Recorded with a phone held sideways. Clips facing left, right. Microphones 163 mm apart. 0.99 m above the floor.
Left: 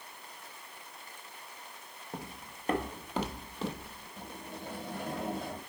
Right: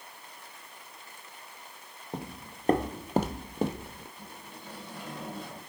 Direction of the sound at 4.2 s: 55° left (ahead or behind).